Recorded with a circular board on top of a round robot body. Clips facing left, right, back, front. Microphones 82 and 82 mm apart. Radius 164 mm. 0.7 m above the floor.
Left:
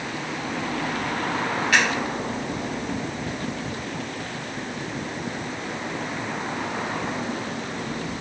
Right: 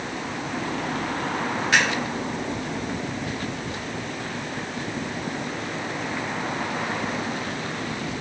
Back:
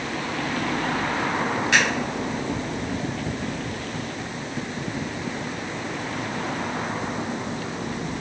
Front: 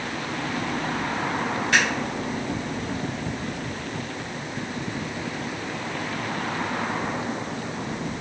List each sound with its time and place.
1.7 s scissors: 155° right, 0.7 m